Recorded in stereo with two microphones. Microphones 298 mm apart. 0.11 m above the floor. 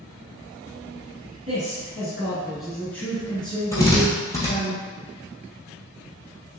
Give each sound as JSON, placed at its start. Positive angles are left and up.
{"t": 1.5, "sound": "a man speaking", "side_deg": -25, "distance_m": 1.6}
{"t": 3.7, "sound": "a drill", "side_deg": 10, "distance_m": 1.4}